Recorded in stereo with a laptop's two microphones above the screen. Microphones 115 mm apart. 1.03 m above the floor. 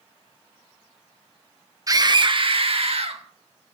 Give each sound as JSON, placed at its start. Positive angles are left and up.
{"t": 1.9, "sound": "a scream", "side_deg": -30, "distance_m": 1.0}